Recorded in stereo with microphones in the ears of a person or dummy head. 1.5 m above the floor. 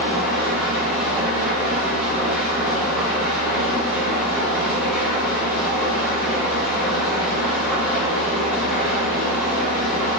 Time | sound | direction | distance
0.0 | an engine running | 5° right (ahead or behind) | 0.9 m